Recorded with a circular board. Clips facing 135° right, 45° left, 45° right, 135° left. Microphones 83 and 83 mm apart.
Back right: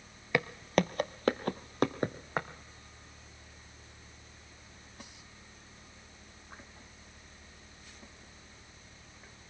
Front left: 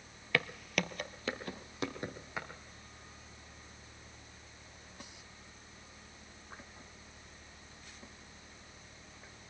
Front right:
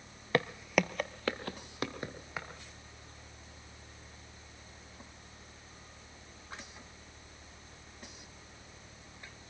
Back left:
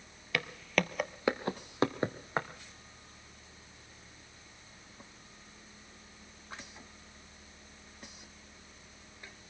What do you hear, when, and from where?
0.3 s footsteps: 75° right, 0.5 m; by 2.5 s 175° right, 1.5 m